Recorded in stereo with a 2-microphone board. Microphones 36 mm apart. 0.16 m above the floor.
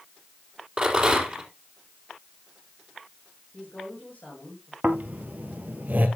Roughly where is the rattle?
Right.